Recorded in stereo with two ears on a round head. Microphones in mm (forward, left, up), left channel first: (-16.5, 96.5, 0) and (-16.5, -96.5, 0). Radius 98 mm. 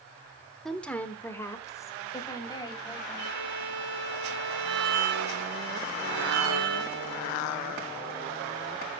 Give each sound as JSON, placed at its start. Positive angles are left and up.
{"t": 0.7, "sound": "a woman speaking", "side_deg": 0, "distance_m": 1.2}
{"t": 3.2, "sound": "a violin", "side_deg": -80, "distance_m": 4.5}